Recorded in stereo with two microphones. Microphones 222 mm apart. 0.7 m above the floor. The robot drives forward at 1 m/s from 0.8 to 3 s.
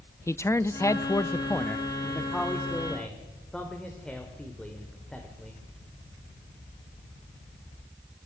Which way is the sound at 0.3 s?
10° left (ahead or behind).